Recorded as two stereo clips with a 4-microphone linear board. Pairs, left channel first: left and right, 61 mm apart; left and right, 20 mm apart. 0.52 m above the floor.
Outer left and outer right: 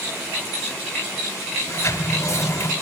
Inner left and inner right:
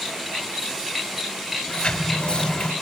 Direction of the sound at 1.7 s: 50° left (ahead or behind).